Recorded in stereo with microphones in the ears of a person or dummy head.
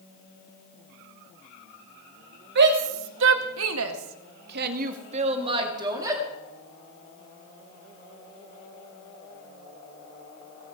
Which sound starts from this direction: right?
A shout, at 2.5 s.